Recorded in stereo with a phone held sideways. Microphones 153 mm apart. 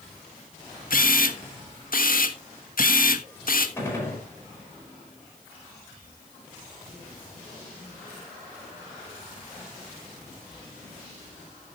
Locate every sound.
0.9 s a camera shutter: 65° left (ahead or behind), 1.3 m
3.8 s a gunshot: 15° left (ahead or behind), 4.5 m